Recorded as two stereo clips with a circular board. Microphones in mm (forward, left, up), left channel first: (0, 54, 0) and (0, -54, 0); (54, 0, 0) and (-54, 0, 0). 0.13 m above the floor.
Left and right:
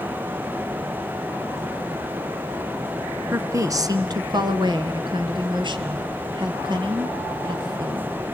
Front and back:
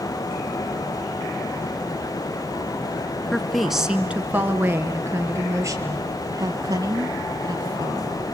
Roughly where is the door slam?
I don't hear a door slam.